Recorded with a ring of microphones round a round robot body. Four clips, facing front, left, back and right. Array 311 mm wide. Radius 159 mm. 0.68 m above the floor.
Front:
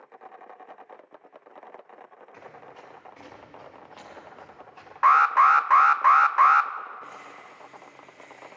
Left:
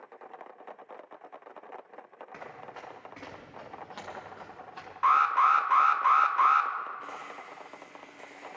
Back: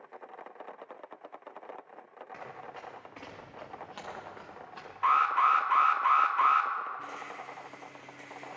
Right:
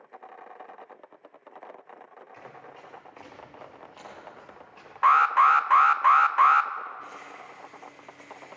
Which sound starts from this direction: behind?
A rattle, at 7.0 s.